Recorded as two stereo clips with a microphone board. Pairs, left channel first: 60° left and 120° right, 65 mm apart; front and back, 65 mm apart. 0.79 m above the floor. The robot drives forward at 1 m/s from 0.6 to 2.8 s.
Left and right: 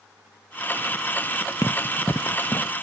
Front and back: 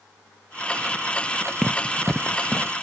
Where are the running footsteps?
85° left.